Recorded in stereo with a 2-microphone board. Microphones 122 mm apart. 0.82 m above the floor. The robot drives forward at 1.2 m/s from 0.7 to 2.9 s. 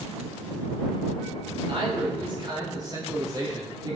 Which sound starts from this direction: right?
A man speaking, at 1.7 s.